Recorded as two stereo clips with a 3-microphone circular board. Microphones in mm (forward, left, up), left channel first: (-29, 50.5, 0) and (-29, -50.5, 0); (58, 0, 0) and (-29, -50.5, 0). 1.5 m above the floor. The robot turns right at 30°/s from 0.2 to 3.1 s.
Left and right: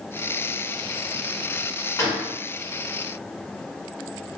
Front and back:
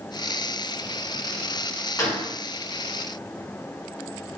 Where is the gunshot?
60° left, 0.9 m; by 2.3 s 70° left, 0.9 m.